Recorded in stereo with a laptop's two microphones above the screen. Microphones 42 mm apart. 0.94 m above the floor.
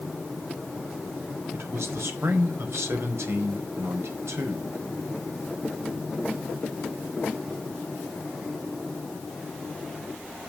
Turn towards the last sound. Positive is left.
turn(degrees=-80)